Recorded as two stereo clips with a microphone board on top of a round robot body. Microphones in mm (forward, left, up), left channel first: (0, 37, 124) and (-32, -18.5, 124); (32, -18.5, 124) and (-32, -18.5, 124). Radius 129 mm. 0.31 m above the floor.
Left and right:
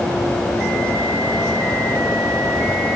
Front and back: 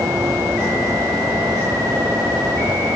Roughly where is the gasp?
No gasp in this recording.